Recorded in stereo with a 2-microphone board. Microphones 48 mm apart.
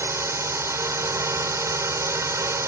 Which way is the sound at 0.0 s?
75° right (ahead or behind).